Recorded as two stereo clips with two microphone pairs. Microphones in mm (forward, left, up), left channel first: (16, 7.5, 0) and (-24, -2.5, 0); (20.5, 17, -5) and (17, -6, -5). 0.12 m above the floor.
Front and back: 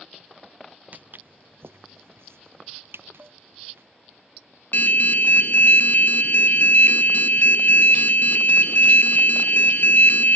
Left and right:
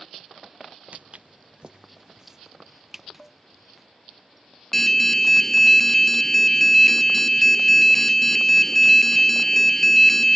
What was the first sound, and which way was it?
Footsteps, 125° right.